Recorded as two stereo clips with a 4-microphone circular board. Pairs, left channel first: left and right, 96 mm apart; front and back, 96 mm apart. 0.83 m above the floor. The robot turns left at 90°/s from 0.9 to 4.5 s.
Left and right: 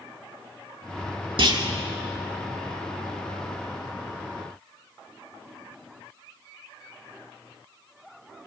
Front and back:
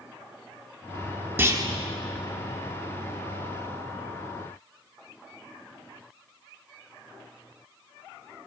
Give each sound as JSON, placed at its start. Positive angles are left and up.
{"t": 1.4, "sound": "a clunk", "azimuth_deg": -115, "distance_m": 2.0}